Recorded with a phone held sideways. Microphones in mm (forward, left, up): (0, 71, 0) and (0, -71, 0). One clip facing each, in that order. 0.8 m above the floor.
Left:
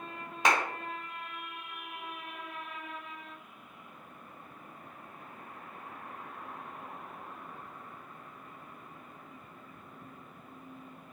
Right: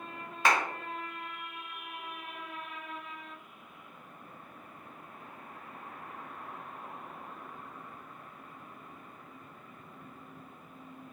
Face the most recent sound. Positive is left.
turn(degrees=20)  # may be behind; listen again after turning